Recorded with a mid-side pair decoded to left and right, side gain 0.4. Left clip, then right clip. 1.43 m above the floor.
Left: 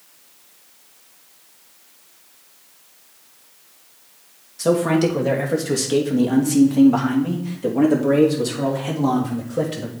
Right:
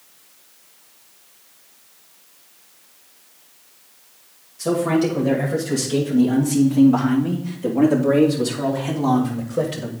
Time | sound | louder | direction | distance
4.6 | a man speaking | left 2 dB | 60° left | 2.5 m